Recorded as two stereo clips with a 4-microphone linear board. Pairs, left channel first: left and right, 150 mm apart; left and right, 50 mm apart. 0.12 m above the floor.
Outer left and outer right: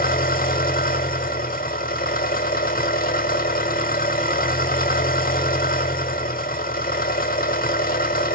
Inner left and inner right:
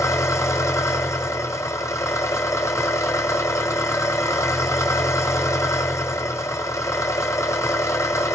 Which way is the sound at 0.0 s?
80° left.